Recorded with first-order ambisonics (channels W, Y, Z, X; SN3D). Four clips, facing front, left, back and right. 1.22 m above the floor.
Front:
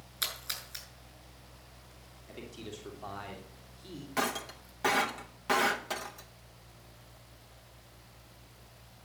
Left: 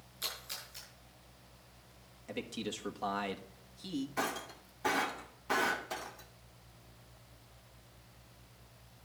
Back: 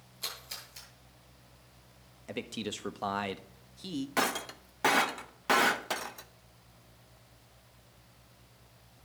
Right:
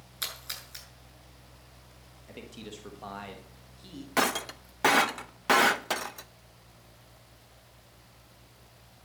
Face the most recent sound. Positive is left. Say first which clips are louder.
# right 9 dB, back 1 dB
turn(degrees=-105)